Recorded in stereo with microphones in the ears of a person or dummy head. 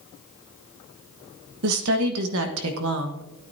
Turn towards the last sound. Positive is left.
turn(degrees=-70)  # may be behind; listen again after turning